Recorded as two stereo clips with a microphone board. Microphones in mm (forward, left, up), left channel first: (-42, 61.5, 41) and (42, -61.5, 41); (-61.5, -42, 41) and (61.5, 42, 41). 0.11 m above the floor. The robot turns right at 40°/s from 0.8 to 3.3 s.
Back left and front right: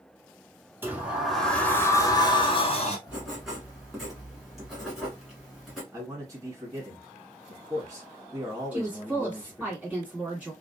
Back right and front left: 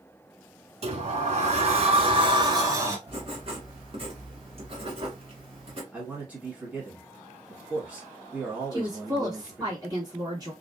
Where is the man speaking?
30° right, 1.1 m.